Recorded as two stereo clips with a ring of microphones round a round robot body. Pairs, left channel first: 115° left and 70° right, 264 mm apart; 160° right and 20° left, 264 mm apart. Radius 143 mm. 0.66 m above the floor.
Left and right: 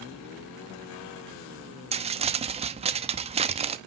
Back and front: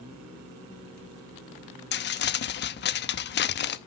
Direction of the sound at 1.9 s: 125° right.